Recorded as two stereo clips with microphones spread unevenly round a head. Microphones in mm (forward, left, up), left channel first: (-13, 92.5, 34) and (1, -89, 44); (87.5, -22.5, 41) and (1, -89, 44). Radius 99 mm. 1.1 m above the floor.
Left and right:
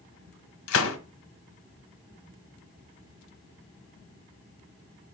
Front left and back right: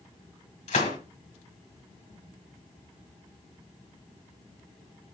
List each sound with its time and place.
0.7 s a gunshot: 90° left, 1.6 m